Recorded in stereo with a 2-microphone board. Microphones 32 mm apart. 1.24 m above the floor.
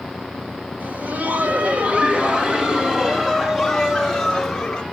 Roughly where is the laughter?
Right.